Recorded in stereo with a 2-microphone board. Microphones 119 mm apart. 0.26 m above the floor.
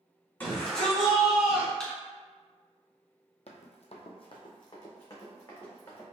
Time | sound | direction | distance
0.4 | a shout | 15° left (ahead or behind) | 1.9 m
1.8 | a thud | 5° left (ahead or behind) | 0.8 m
3.5 | running footsteps | 65° left (ahead or behind) | 0.5 m